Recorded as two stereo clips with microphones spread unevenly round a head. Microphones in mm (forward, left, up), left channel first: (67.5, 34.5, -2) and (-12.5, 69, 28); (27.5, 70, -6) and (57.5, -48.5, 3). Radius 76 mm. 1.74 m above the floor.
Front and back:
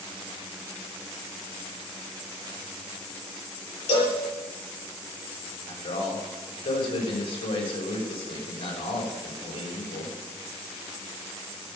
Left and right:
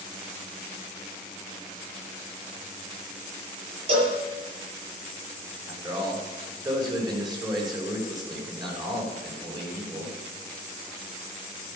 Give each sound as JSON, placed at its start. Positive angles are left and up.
{"t": 3.9, "sound": "a cowbell", "azimuth_deg": -30, "distance_m": 7.0}
{"t": 5.7, "sound": "a man speaking", "azimuth_deg": -20, "distance_m": 6.0}